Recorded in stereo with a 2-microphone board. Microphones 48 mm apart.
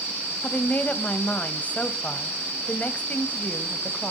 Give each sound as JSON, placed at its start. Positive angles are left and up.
{"t": 0.4, "sound": "a woman speaking", "side_deg": 30, "distance_m": 1.2}